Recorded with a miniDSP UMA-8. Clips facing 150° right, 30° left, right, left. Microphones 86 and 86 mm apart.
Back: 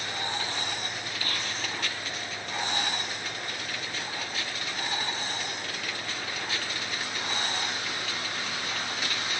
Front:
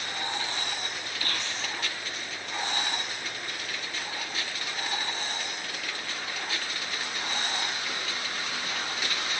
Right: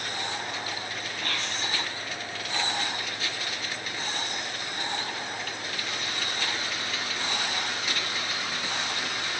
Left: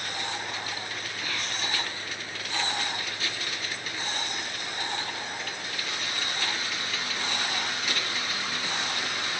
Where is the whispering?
5° left, 5 m.